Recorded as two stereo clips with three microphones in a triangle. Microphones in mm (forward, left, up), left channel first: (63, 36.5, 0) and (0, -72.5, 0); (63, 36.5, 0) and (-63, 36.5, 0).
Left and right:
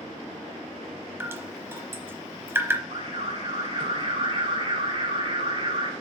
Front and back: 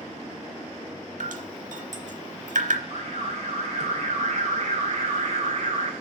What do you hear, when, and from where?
1.2 s dripping: 170° left, 0.8 m
2.9 s an alarm: 165° right, 2.5 m